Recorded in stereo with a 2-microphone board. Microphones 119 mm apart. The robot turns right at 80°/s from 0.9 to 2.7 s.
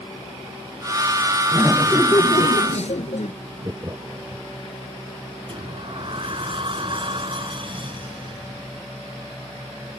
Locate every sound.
1.5 s laughter: 20° right; by 3.3 s 75° left
3.6 s laughter: 25° right (ahead or behind)
5.5 s a sliding door: 45° right (ahead or behind)